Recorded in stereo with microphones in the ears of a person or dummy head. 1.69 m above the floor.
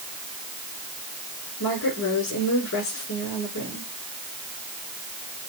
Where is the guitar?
No guitar in this recording.